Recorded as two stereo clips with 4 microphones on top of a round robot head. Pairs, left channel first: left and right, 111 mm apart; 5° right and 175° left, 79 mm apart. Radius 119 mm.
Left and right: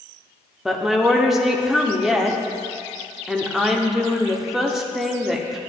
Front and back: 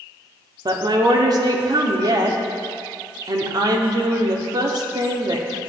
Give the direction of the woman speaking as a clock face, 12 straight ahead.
6 o'clock.